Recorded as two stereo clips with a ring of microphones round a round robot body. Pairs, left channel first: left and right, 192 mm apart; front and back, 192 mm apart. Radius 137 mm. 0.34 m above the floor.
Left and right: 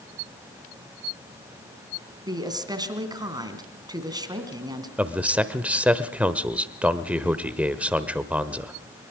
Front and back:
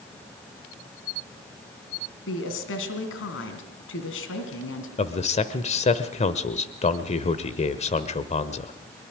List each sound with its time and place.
2.3 s a woman speaking: 20° right, 3 m
5.0 s a man speaking: 10° right, 1.0 m